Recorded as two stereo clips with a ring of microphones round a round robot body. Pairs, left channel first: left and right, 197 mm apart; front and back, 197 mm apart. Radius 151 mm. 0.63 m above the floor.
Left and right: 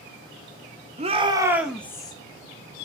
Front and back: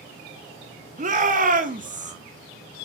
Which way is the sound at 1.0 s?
140° right.